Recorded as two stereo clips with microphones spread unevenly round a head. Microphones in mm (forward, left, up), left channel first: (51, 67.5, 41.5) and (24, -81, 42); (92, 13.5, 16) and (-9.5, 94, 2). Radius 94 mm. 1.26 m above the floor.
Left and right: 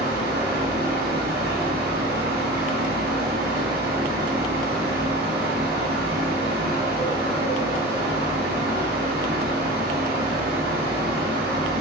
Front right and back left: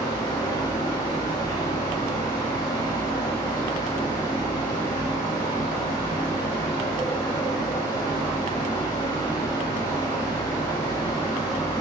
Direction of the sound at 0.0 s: 100° right.